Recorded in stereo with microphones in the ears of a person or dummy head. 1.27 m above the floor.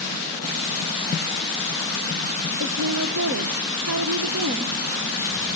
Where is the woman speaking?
60° right (ahead or behind), 1.0 m.